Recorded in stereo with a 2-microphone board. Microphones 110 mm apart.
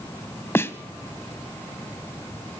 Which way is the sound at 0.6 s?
20° left (ahead or behind).